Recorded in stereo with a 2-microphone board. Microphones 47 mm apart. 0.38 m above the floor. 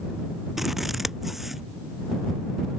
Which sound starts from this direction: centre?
Scissors, at 0.6 s.